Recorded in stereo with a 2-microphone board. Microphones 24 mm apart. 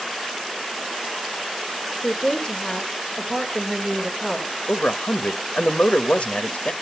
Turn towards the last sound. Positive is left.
turn(degrees=70)  # may be behind; listen again after turning